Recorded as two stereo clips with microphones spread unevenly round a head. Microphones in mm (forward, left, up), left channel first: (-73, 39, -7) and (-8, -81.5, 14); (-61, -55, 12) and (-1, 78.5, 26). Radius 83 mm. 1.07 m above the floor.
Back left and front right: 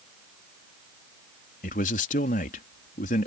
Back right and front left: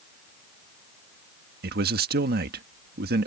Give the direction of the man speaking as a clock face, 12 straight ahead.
9 o'clock.